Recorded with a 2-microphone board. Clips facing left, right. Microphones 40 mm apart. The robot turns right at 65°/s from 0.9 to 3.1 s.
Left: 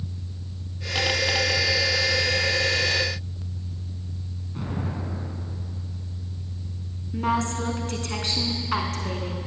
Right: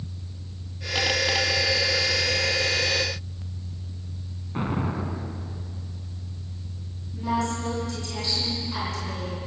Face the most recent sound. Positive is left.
turn(degrees=55)  # may be behind; listen again after turning